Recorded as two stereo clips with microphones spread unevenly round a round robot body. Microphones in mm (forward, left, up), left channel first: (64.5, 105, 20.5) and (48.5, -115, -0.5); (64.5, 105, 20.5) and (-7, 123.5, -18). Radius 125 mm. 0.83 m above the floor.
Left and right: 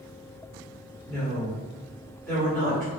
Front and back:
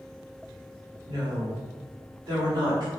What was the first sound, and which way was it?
A woman speaking, 175° left.